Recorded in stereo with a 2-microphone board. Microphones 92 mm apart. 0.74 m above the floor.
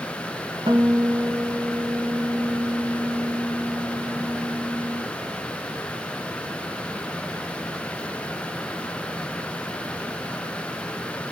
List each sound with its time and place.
0.7 s a guitar: 80° right, 2.5 m